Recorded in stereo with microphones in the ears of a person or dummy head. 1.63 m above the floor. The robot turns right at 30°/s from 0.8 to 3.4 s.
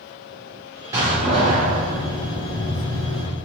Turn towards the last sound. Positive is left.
turn(degrees=-85)